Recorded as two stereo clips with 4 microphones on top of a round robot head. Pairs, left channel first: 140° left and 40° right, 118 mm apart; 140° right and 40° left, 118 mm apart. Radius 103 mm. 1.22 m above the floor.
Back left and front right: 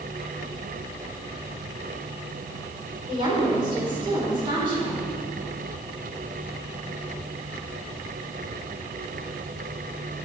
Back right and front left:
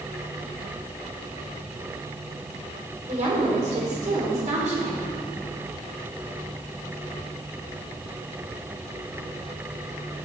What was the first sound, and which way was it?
A woman speaking, 15° left.